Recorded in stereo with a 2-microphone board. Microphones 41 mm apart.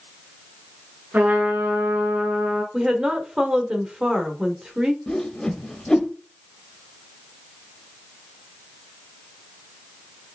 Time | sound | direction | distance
1.1 | a trumpet | 55° right (ahead or behind) | 2 m
2.7 | a woman speaking | 25° right (ahead or behind) | 1.1 m
5.1 | a whoosh | 15° left (ahead or behind) | 0.7 m